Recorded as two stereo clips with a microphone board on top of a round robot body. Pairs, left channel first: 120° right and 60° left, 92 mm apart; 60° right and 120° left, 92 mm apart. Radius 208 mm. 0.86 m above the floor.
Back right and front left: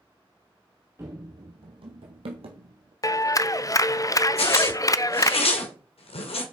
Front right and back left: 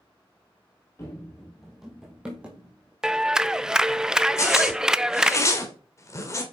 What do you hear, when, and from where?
1.0 s running footsteps: straight ahead, 1.0 m; by 2.9 s 45° left, 2.5 m
3.0 s a clap: 160° right, 0.7 m
4.4 s a zipper: 120° right, 2 m